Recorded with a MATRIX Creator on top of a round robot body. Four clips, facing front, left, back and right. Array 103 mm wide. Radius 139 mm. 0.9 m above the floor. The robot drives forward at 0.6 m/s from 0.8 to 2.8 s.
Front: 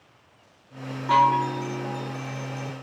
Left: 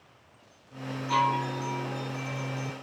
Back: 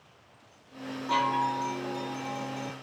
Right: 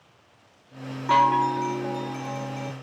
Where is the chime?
60° right, 1.5 m; by 2.7 s 105° right, 1.3 m.